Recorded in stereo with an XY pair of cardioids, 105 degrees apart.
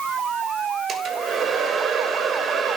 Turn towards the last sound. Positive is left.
turn(degrees=-50)